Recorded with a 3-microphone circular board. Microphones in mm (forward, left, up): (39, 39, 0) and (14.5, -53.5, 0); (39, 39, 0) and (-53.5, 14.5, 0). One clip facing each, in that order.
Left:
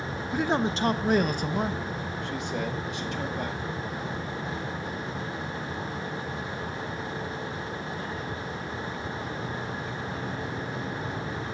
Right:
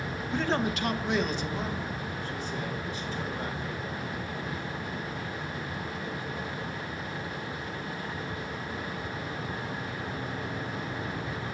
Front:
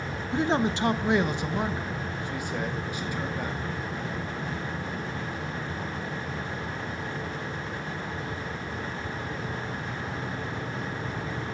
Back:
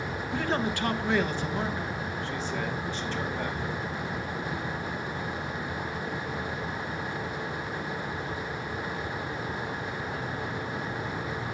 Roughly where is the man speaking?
Ahead.